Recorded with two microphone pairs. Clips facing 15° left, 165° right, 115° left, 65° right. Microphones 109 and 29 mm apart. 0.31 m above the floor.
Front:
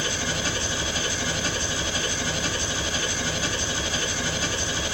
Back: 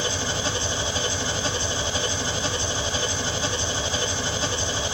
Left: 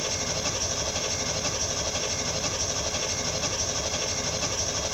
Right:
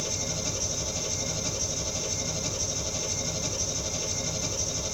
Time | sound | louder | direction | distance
0.0 | an engine running | back 1 dB, left 3 dB | 135° left | 0.8 m